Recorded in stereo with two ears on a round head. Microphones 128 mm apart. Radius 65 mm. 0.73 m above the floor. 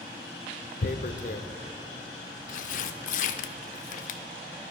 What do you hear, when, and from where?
0.8 s tearing paper: 60° left (ahead or behind), 0.5 m